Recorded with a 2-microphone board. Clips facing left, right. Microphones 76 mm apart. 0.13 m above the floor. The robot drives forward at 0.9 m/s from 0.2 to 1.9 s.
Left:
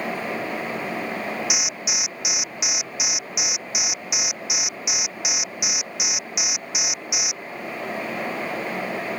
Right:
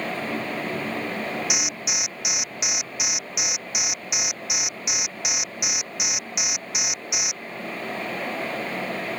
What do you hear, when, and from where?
1.5 s an alarm: centre (ahead or behind)